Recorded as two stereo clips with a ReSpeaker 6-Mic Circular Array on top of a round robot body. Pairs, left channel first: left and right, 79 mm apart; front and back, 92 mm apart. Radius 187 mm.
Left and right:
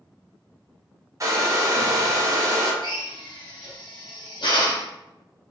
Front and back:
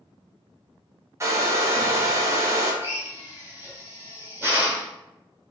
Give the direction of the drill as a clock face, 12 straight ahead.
8 o'clock.